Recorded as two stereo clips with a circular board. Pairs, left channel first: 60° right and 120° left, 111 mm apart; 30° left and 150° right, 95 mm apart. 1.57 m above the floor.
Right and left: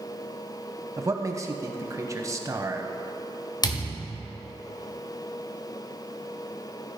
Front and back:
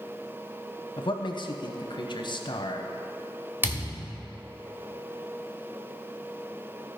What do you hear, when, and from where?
1.0 s a man speaking: 60° left, 0.8 m
3.6 s a thud: 90° right, 1.8 m